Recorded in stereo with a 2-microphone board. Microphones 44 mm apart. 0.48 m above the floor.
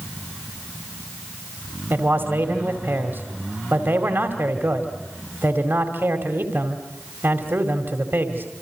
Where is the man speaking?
55° right (ahead or behind), 2.5 m.